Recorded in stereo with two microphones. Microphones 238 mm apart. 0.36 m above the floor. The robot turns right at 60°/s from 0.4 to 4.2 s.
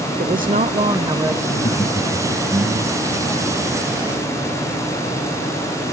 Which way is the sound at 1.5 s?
135° left.